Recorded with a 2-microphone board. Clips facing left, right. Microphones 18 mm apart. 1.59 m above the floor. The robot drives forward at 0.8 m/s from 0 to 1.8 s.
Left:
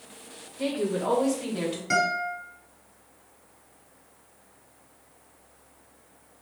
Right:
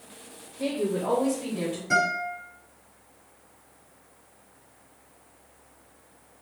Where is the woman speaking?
55° left (ahead or behind), 1.7 m; by 1.8 s 75° left (ahead or behind), 1.5 m.